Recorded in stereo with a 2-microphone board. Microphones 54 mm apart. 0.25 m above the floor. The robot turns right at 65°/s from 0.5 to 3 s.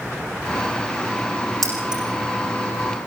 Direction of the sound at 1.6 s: 5° left (ahead or behind).